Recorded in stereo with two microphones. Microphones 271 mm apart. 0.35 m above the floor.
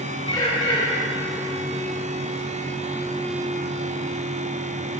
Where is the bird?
15° left (ahead or behind), 1.2 m.